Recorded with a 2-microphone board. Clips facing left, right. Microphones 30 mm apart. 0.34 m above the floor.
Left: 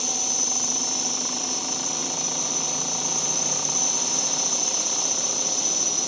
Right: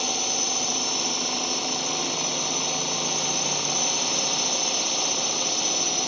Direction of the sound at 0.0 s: 25° right (ahead or behind).